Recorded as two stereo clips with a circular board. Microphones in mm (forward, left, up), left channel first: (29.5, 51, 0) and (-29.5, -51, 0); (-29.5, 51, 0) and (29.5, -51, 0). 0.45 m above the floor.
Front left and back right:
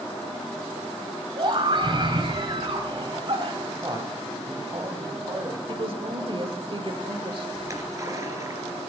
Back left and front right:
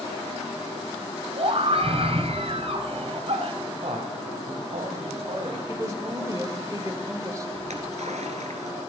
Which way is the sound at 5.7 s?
110° right.